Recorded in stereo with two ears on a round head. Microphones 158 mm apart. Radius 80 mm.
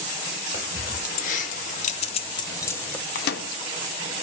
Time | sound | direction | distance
0.5 | keys jangling | 40° left (ahead or behind) | 1.3 m
3.1 | a microwave | 60° left (ahead or behind) | 0.5 m